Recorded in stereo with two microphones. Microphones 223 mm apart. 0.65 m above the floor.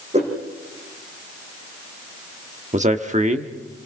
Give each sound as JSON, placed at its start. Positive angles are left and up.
{"t": 0.1, "sound": "a whoosh", "side_deg": -30, "distance_m": 5.5}
{"t": 2.7, "sound": "a man speaking", "side_deg": -35, "distance_m": 1.3}